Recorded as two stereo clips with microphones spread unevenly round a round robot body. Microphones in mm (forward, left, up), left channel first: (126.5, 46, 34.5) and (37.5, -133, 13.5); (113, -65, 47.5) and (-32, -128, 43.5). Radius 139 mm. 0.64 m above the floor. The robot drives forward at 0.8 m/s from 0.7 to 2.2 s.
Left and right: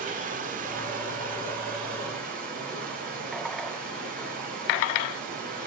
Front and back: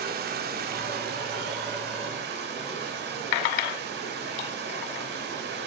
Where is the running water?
165° right, 1.7 m; by 5.7 s 175° right, 3 m.